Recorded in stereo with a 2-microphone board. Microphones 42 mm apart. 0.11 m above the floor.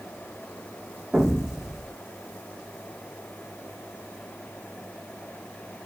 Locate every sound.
1.1 s an explosion: 10° right (ahead or behind), 0.9 m